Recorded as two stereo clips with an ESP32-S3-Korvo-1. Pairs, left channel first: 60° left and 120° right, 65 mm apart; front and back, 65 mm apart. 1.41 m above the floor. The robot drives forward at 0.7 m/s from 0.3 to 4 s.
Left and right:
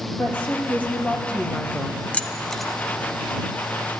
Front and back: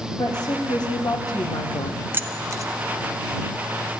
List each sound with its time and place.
0.2 s a woman speaking: 10° right, 1.8 m; by 2.0 s 25° right, 0.6 m
2.1 s keys jangling: 125° left, 0.6 m; by 2.7 s 150° left, 0.8 m